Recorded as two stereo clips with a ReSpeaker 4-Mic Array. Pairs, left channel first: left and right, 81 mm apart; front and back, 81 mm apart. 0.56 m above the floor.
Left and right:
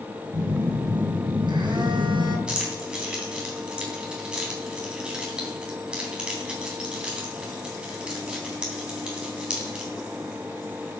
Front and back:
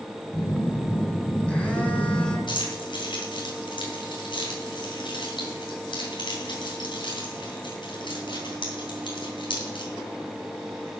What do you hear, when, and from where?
0.3 s a phone buzzing: 75° right, 2.5 m
2.5 s keys jangling: 10° right, 3 m